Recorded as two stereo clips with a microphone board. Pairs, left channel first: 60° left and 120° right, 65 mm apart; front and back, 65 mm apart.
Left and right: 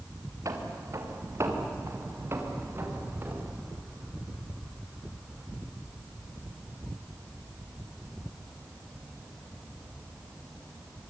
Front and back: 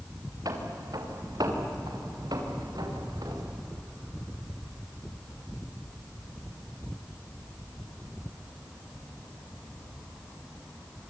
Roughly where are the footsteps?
Behind right.